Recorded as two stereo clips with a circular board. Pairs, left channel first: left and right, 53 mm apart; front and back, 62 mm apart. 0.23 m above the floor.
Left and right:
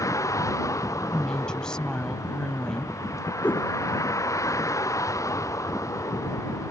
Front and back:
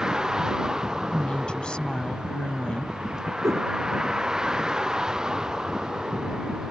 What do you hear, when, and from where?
0.0 s a vehicle: 100° left
1.1 s a woman speaking: 45° left
3.4 s a whoosh: 145° left